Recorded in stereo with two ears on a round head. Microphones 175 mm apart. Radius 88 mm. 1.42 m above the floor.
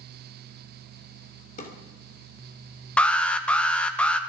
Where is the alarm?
5° left (ahead or behind), 1.1 m.